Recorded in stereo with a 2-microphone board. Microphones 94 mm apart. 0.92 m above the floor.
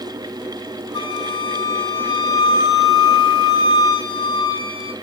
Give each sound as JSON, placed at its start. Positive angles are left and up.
{"t": 0.9, "sound": "a flute", "side_deg": 70, "distance_m": 1.4}